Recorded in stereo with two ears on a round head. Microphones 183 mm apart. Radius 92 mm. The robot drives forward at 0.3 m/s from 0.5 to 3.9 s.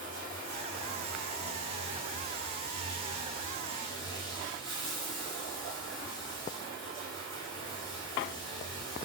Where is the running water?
40° right (ahead or behind), 1.5 m; by 9.1 s 25° right (ahead or behind), 2.5 m.